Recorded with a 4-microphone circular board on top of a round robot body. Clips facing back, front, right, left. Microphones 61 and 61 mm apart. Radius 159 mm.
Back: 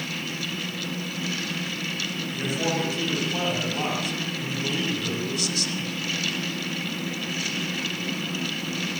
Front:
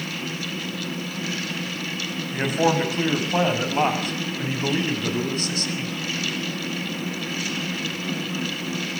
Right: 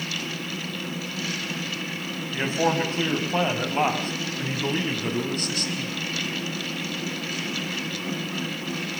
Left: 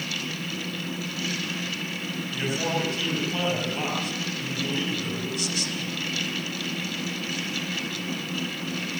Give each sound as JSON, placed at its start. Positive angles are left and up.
{"t": 2.3, "sound": "a man speaking", "azimuth_deg": -35, "distance_m": 6.5}